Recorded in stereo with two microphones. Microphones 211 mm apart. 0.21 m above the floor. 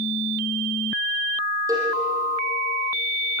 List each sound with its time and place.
1.7 s a cowbell: 15° right (ahead or behind), 5.5 m